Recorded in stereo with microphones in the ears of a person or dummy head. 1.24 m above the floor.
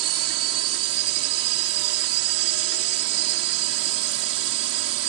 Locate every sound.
0.0 s a drone: 80° right